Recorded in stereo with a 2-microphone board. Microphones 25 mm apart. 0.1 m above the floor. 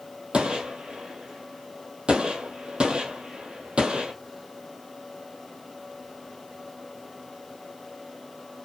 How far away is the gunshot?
About 0.8 m.